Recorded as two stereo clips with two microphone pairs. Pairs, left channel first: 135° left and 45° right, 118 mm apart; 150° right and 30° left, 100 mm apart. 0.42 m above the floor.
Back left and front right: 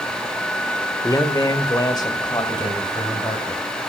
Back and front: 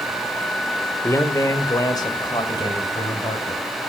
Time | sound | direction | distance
1.0 | a man speaking | 170° left | 1.5 m